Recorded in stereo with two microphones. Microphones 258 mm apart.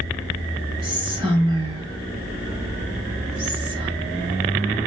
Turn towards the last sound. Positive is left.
turn(degrees=-20)  # may be behind; listen again after turning